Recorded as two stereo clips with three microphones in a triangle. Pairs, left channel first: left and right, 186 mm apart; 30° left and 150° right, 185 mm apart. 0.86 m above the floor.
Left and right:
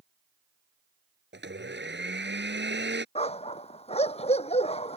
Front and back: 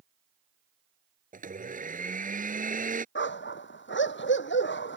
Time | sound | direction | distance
1.3 | a blender | 105° right | ?
3.1 | a dog barking | 35° left | ?